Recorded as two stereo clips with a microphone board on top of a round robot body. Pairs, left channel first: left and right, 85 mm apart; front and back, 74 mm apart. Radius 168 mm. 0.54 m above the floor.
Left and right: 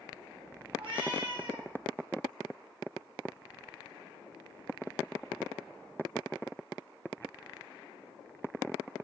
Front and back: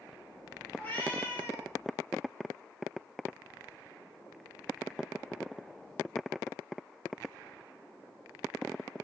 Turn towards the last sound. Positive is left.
turn(degrees=-65)